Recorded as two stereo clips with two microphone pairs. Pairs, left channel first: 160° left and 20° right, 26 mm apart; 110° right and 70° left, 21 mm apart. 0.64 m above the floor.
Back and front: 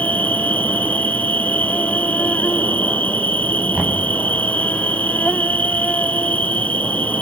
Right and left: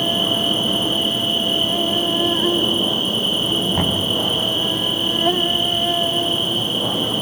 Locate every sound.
0.0 s an insect: 160° left, 0.9 m
3.7 s knocking: 70° right, 4.5 m